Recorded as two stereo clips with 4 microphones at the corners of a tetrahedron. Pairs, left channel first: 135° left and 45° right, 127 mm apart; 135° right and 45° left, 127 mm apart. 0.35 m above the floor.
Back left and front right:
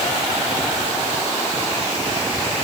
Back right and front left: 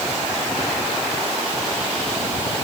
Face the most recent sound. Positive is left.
No sound to turn to.